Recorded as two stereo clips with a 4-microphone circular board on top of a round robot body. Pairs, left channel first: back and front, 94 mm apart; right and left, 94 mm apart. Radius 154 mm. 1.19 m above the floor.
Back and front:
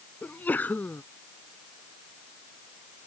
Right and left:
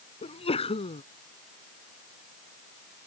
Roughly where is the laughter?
No laughter in this recording.